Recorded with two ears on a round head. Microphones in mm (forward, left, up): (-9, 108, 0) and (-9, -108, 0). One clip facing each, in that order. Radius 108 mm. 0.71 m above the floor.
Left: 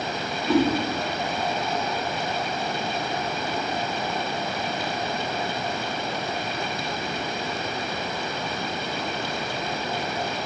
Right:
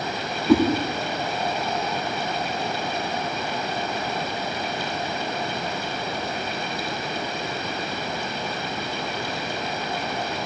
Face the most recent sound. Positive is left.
turn(degrees=-85)